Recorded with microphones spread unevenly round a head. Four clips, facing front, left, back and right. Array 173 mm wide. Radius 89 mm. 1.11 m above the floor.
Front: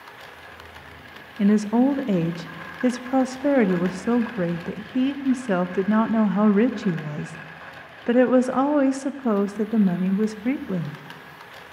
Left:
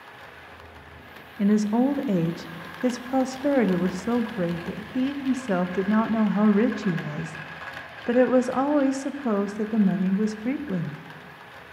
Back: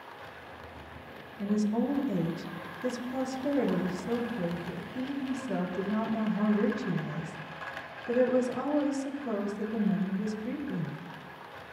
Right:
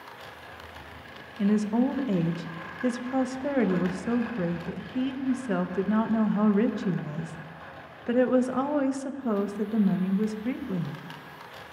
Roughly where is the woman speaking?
Ahead left.